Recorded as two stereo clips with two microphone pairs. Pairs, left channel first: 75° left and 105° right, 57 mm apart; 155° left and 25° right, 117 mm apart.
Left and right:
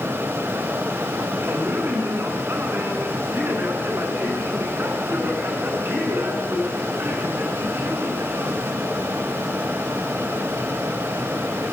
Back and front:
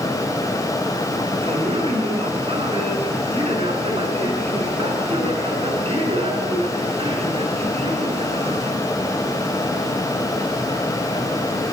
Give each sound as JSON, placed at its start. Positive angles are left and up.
{"t": 1.4, "sound": "a man speaking", "azimuth_deg": -60, "distance_m": 8.5}